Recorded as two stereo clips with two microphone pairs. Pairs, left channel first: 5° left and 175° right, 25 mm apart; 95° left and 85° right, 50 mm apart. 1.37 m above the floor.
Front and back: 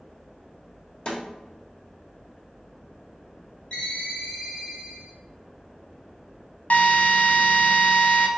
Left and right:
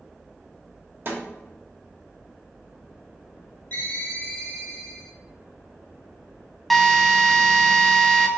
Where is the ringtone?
50° left, 2 m.